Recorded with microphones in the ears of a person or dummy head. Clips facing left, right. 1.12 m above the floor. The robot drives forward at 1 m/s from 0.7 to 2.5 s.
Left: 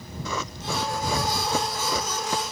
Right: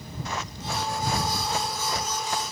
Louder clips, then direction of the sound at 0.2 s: Left 3 dB; 85° left.